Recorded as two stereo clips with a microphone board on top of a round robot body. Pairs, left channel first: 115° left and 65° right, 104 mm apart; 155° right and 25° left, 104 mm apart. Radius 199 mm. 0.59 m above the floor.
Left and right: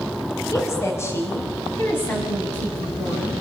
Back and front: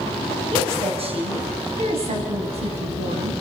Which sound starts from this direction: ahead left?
A woman speaking, at 0.5 s.